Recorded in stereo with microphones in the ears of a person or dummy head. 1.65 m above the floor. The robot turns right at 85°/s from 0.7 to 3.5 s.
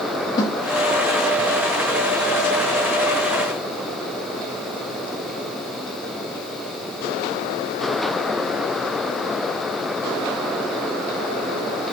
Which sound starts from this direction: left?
A snare drum, at 0.4 s.